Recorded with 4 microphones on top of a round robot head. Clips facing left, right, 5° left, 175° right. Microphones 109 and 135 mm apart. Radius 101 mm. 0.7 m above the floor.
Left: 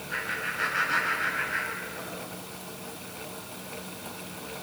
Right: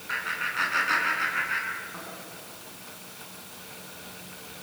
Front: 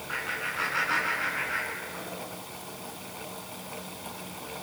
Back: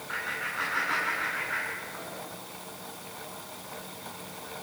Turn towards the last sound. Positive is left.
turn(degrees=-80)